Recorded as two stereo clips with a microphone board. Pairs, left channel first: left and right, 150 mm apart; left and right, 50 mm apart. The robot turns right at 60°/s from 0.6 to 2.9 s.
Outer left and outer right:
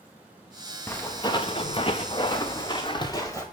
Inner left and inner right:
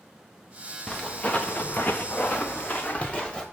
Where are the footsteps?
15° left (ahead or behind), 1.2 m.